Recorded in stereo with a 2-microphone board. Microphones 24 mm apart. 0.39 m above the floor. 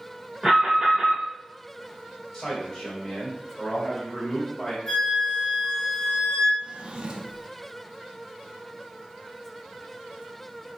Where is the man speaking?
5° left (ahead or behind), 2.0 m.